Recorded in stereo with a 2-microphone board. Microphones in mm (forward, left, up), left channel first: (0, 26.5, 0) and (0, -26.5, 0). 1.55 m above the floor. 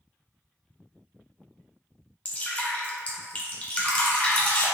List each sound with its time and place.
2.2 s dripping: 25° left (ahead or behind), 0.7 m